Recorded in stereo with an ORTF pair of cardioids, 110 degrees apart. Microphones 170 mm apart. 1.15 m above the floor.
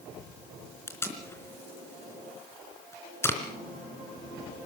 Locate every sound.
0.9 s tape being pulled: 15° left, 3.5 m